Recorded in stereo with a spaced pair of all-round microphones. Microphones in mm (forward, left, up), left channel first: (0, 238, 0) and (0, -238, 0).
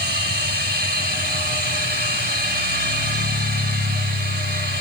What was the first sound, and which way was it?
A machine running, 20° right (ahead or behind).